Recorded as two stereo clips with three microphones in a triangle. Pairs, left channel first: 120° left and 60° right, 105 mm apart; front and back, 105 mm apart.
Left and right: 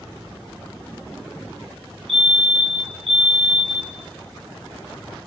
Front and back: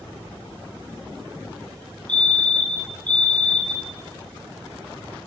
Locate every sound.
2.1 s a fire alarm: 80° right, 4 m